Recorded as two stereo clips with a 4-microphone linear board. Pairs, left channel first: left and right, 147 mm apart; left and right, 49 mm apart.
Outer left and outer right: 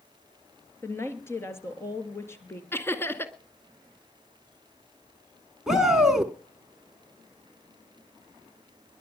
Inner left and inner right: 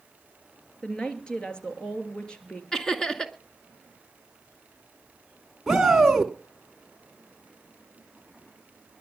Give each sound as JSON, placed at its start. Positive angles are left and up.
{"t": 0.8, "sound": "a woman speaking", "side_deg": 20, "distance_m": 2.5}
{"t": 2.7, "sound": "laughter", "side_deg": 15, "distance_m": 1.9}
{"t": 5.7, "sound": "a shout", "side_deg": -5, "distance_m": 1.3}